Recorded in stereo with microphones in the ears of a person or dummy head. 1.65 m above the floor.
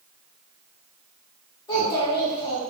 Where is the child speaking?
15° left (ahead or behind), 1.1 m.